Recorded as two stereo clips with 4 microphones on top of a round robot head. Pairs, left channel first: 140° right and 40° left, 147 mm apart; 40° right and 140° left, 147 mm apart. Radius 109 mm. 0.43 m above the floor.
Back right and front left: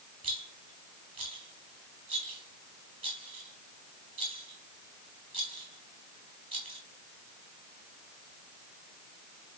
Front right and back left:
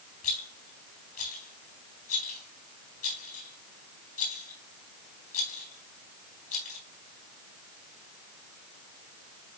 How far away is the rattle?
About 3.5 m.